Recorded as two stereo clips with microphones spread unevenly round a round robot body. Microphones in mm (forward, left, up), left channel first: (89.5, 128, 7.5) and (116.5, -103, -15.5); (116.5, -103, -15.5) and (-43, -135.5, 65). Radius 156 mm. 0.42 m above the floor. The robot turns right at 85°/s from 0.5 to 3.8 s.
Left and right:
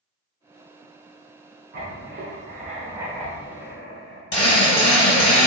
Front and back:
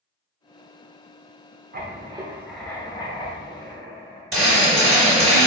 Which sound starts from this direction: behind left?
A drill, at 4.3 s.